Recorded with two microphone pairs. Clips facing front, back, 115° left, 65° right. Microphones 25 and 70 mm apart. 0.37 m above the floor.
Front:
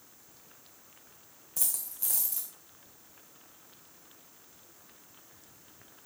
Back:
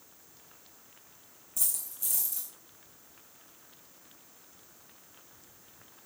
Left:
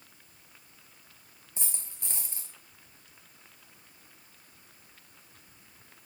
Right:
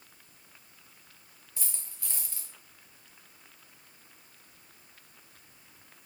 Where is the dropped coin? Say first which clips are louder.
Back 1 dB, left 2 dB; 45° left, 2.5 m.